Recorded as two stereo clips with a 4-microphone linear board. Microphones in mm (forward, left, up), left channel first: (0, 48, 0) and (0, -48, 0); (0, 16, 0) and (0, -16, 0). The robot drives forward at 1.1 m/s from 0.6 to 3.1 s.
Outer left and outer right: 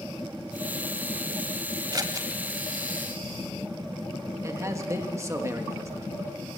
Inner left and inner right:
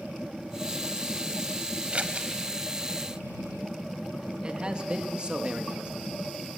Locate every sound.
1.9 s scissors: 45° right (ahead or behind), 1.3 m; by 2.3 s 35° right (ahead or behind), 1.5 m
4.4 s a man speaking: 30° right (ahead or behind), 1.6 m